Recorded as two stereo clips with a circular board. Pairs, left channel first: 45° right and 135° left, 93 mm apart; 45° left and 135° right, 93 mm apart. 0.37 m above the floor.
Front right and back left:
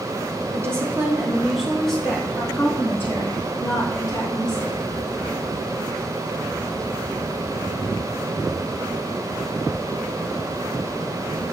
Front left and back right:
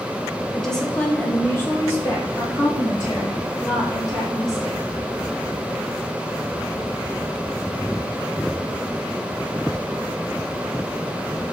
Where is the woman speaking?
130° left, 0.9 m; by 4.8 s 10° left, 2 m.